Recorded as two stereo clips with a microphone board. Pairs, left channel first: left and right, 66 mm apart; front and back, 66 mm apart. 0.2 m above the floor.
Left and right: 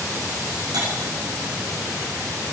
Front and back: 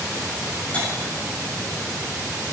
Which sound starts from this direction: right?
Cutlery clinking, at 0.7 s.